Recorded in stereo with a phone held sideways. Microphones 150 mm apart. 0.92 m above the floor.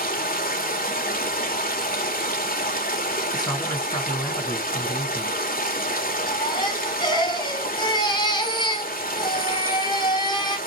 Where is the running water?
75° left (ahead or behind), 2.5 m.